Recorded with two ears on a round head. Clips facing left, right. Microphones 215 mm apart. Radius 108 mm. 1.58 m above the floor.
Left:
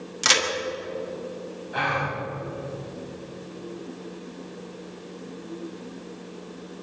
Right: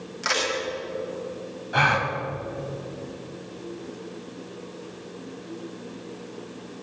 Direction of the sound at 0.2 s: 50° left (ahead or behind).